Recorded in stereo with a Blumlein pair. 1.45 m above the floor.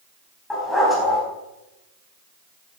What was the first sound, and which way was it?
A dog barking, 10° left.